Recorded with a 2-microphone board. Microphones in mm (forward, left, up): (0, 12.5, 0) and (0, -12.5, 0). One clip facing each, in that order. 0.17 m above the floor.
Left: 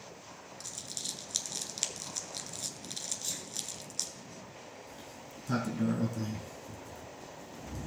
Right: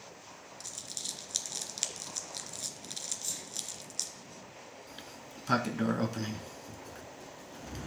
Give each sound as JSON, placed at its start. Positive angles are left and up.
{"t": 0.6, "sound": "crumpling", "side_deg": 0, "distance_m": 0.8}
{"t": 3.2, "sound": "a sneeze", "side_deg": 30, "distance_m": 1.3}
{"t": 4.9, "sound": "a sliding door", "side_deg": -60, "distance_m": 0.6}